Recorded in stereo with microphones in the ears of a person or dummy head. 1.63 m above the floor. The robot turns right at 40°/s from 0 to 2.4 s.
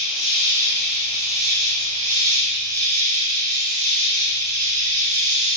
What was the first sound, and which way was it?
An insect, 175° left.